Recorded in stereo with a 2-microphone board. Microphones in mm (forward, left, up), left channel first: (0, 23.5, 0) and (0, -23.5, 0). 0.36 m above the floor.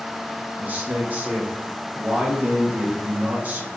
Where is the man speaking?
35° right (ahead or behind), 1.1 m.